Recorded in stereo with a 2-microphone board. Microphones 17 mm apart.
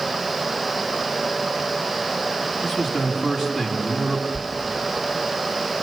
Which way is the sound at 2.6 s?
30° right (ahead or behind).